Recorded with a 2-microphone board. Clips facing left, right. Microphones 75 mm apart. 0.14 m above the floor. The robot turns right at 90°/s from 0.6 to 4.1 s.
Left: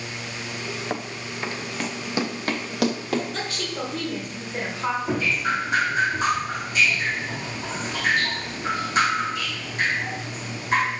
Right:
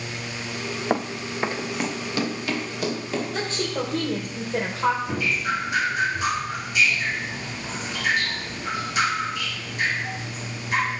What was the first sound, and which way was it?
Running footsteps, 25° right (ahead or behind).